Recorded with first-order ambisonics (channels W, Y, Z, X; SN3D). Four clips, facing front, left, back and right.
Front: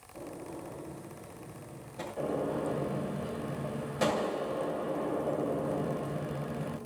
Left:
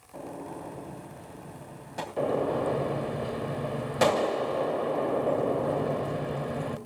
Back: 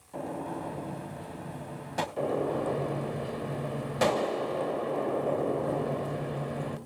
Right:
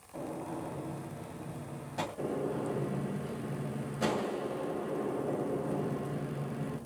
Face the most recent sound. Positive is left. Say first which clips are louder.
# left 10 dB, back 1 dB
turn(degrees=110)